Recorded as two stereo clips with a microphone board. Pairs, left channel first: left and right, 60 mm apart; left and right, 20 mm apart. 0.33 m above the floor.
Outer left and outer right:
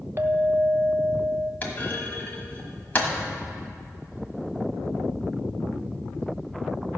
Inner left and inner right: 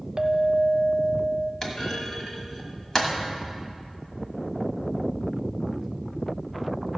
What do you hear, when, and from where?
0.2 s a clink: 35° right (ahead or behind), 0.6 m
1.6 s a clunk: 30° left (ahead or behind), 1.3 m